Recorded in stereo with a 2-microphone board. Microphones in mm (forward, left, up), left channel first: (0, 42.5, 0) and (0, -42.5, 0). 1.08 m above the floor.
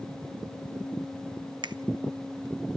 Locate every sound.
1.6 s a finger snap: 60° right (ahead or behind), 1.0 m